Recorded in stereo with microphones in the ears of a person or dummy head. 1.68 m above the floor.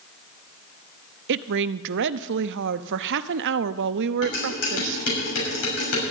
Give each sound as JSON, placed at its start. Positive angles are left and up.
{"t": 1.3, "sound": "a woman speaking", "side_deg": -65, "distance_m": 0.7}
{"t": 4.2, "sound": "dishes clattering", "side_deg": 75, "distance_m": 6.0}